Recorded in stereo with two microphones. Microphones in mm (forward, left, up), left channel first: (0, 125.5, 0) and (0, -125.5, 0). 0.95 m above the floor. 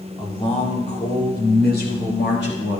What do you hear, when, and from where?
0.2 s a man speaking: 20° left (ahead or behind), 2.5 m; by 2.8 s 50° left (ahead or behind), 5 m